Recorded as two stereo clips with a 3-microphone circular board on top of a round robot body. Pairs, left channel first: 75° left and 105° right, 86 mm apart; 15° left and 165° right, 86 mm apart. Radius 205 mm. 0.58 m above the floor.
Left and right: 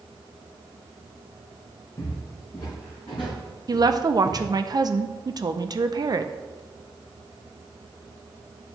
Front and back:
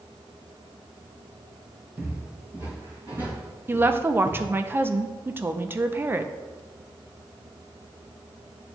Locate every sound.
2.0 s footsteps: 135° left, 3 m
3.7 s a woman speaking: 110° right, 0.7 m